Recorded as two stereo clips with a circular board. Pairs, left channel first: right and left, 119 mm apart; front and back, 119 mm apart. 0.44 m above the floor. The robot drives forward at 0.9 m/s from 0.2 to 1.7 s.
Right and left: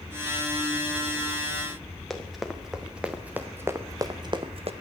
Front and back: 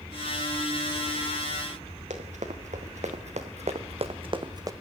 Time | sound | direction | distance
2.1 | running footsteps | straight behind | 3.5 m